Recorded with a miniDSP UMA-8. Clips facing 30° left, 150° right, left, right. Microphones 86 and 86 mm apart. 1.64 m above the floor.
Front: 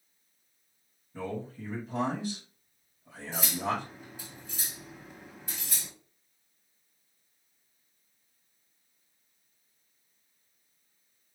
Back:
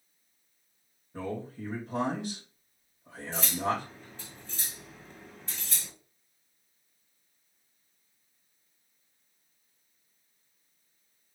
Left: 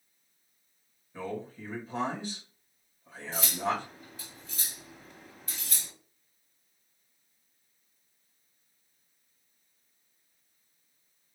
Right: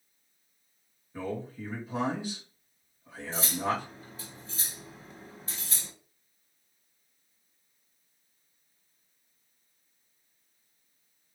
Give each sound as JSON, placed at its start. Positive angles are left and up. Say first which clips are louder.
{"t": 1.1, "sound": "a man speaking", "louder": "back 1 dB, right 2 dB", "azimuth_deg": -170, "distance_m": 2.5}
{"t": 3.3, "sound": "cutlery clinking", "louder": "back 1 dB, right 1 dB", "azimuth_deg": -45, "distance_m": 1.0}